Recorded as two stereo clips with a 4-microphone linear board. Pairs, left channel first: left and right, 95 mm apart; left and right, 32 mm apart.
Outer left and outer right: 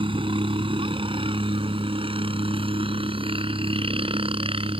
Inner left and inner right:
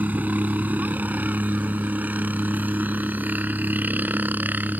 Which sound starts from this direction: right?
A helicopter, at 0.0 s.